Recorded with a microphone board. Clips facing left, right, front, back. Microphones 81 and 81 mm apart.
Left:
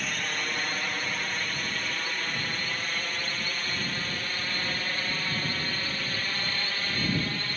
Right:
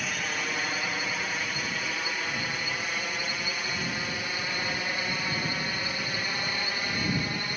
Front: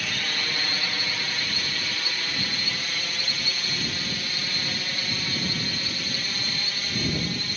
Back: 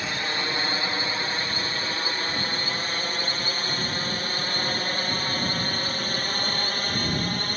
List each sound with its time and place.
0.0 s a drone: 170° right; by 7.6 s 160° right